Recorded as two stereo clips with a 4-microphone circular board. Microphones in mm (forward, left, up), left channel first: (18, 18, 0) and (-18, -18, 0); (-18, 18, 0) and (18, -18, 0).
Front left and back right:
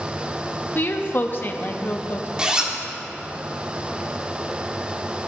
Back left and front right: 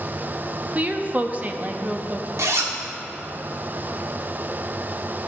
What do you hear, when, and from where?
0.8 s a woman speaking: 5° left, 0.8 m
2.4 s a zipper: 65° right, 1.4 m